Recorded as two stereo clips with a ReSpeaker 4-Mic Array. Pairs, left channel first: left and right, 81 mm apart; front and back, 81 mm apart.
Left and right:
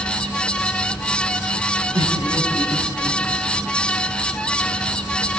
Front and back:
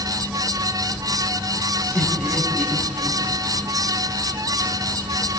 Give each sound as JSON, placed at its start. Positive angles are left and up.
{"t": 1.9, "sound": "laughter", "azimuth_deg": -80, "distance_m": 6.5}